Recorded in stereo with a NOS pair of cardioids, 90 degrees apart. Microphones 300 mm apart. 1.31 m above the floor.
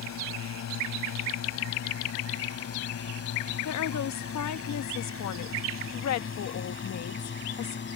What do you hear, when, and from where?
0.0 s a drone: 65° left; by 8.0 s 40° left
3.6 s a woman speaking: 65° left